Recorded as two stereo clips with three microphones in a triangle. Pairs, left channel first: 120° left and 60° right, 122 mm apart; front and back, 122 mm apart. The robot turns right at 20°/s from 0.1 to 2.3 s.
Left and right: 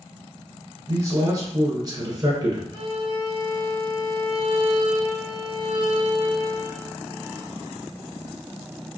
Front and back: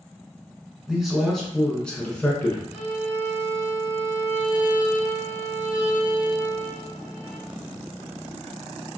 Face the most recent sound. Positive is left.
turn(degrees=-110)